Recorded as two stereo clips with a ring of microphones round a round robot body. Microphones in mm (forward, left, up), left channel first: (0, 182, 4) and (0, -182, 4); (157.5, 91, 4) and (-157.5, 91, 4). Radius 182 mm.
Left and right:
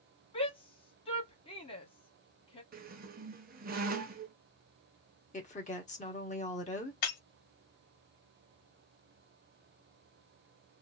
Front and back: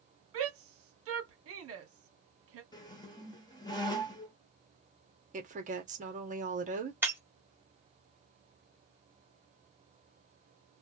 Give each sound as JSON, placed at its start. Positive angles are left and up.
{"t": 0.3, "sound": "a shout", "azimuth_deg": 160, "distance_m": 1.4}
{"t": 2.7, "sound": "a squeak", "azimuth_deg": -60, "distance_m": 0.6}
{"t": 5.3, "sound": "a woman speaking", "azimuth_deg": 140, "distance_m": 1.2}
{"t": 7.0, "sound": "breaking glass", "azimuth_deg": 95, "distance_m": 1.6}